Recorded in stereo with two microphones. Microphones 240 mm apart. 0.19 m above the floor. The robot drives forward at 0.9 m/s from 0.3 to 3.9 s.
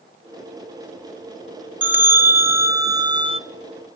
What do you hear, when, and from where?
1.8 s a bell: 5° right (ahead or behind), 1.7 m; by 3.4 s 25° right (ahead or behind), 0.5 m